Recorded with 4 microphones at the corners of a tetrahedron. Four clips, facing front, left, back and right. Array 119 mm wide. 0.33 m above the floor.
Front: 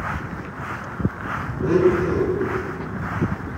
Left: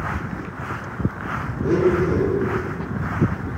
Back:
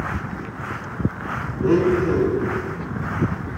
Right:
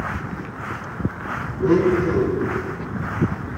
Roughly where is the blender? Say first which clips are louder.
Right 1 dB, even; right.